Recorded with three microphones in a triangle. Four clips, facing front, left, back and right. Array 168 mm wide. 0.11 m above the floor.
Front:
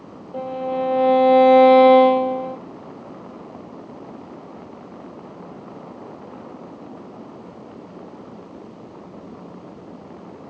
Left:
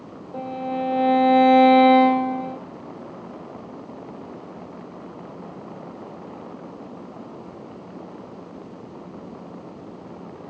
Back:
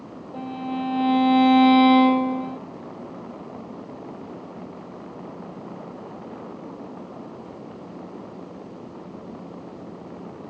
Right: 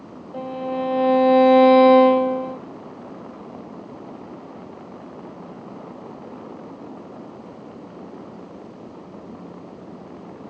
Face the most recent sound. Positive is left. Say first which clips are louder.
# right 1 dB, front 5 dB
turn(degrees=60)